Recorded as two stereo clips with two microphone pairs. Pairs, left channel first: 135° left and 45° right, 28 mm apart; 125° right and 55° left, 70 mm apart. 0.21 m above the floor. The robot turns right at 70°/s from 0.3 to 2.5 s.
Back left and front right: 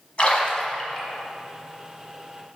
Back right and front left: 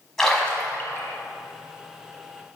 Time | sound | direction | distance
0.2 | a splash | 155° left | 1.3 m